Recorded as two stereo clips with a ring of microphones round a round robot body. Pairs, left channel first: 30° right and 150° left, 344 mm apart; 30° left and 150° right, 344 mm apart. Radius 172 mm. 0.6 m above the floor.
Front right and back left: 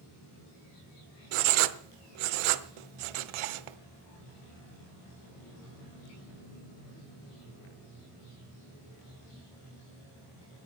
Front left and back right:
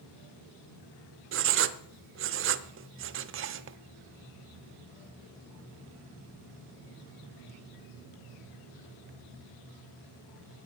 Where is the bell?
No bell in this recording.